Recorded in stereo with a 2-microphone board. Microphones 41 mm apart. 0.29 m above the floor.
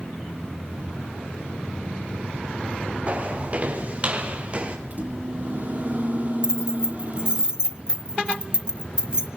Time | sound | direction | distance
3.1 | footsteps | 35° right (ahead or behind) | 5.5 m
4.9 | a microwave | 35° right (ahead or behind) | 8 m
6.4 | keys jangling | 20° right (ahead or behind) | 1.0 m